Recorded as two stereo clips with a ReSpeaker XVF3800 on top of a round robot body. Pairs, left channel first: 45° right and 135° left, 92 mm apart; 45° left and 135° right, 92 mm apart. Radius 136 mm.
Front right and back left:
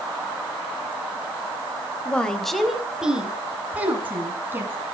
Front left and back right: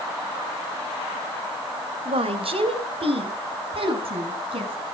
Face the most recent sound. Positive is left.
turn(degrees=-160)